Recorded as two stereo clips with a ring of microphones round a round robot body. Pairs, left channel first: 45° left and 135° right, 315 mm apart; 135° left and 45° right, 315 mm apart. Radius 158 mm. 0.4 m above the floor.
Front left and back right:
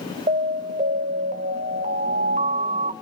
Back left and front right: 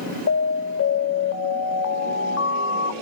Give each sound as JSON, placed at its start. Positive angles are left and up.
{"t": 0.3, "sound": "an alarm", "azimuth_deg": 165, "distance_m": 1.5}